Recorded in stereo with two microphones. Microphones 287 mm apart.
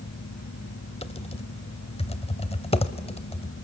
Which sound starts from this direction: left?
Typing on a keyboard, at 1.0 s.